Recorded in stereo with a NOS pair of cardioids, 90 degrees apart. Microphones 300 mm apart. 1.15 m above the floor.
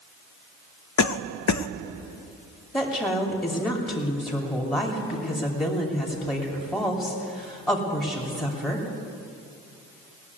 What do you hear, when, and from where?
1.0 s a cough: 65° left, 0.6 m
2.7 s a woman speaking: 10° left, 2.5 m